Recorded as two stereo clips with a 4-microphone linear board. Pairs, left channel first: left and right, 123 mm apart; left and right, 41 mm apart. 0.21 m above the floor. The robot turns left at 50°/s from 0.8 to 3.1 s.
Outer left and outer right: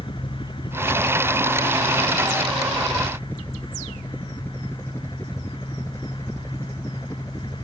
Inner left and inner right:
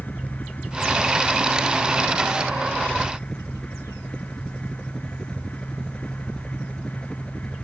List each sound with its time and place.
0.0 s a helicopter: 45° left (ahead or behind); by 7.7 s 25° left (ahead or behind)